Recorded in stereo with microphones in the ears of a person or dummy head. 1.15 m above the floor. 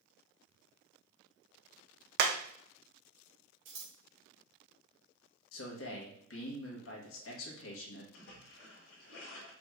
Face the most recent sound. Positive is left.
turn(degrees=65)  # may be behind; listen again after turning